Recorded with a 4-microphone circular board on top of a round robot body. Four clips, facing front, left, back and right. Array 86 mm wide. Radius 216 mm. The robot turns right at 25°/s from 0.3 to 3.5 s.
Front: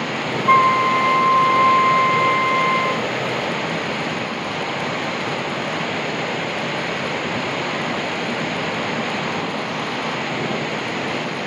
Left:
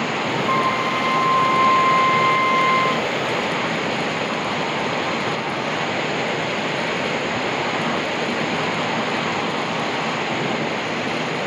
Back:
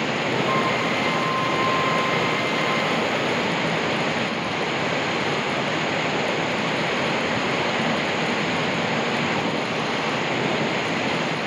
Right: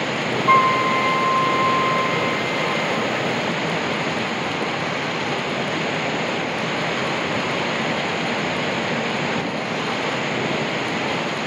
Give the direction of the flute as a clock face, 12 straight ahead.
1 o'clock.